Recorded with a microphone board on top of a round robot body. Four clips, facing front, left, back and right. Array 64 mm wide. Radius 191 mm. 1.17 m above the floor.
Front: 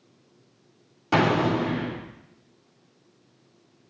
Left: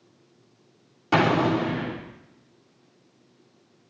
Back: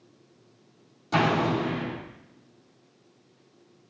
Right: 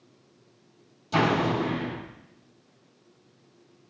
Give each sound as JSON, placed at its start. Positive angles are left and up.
{"t": 1.1, "sound": "an explosion", "azimuth_deg": 50, "distance_m": 3.5}